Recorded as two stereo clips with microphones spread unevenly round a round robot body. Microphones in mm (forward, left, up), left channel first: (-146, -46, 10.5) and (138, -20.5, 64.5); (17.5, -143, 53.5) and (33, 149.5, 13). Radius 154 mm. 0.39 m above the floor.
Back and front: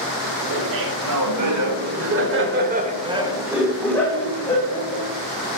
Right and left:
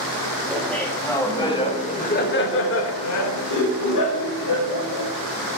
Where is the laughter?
Straight ahead, 2.5 m; by 5.1 s 120° right, 2.5 m.